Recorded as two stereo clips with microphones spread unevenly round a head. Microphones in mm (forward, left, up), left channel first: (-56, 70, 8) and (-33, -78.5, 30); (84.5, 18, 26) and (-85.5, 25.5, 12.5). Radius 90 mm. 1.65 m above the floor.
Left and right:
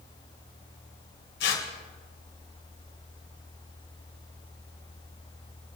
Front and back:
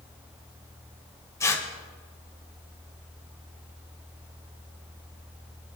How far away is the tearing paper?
About 2.5 m.